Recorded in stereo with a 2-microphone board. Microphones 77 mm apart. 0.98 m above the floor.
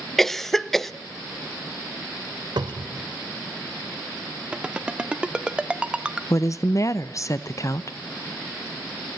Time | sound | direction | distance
0.2 | a cough | 5° left (ahead or behind) | 0.5 m
2.6 | a cupboard door | 70° right (ahead or behind) | 1.3 m
4.5 | a ringtone | 15° right (ahead or behind) | 0.7 m
6.3 | a woman speaking | 45° left (ahead or behind) | 0.7 m